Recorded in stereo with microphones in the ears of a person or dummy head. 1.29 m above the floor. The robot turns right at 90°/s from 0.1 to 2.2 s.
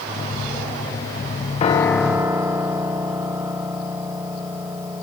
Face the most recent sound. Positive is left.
turn(degrees=-160)